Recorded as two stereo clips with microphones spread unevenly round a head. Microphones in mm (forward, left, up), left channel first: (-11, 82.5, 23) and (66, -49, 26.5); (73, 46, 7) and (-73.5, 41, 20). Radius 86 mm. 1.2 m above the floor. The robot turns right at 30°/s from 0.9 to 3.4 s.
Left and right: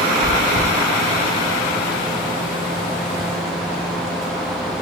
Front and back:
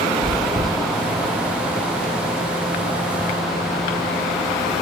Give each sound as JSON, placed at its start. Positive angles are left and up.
{"t": 0.2, "sound": "chewing", "azimuth_deg": 125, "distance_m": 2.0}